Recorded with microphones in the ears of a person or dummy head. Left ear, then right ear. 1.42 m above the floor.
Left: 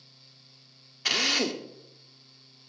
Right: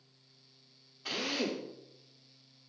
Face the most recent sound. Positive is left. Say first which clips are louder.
# left 9 dB
turn(degrees=60)  # may be behind; listen again after turning